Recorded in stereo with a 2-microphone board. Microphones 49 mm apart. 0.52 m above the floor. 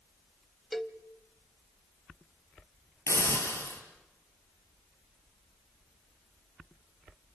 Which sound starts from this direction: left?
A hiss, at 3.1 s.